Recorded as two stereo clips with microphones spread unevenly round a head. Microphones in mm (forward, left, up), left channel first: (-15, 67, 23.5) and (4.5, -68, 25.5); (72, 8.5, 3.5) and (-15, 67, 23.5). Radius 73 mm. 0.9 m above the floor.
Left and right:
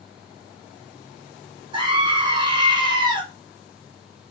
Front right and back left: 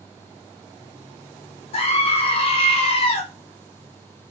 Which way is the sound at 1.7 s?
25° right.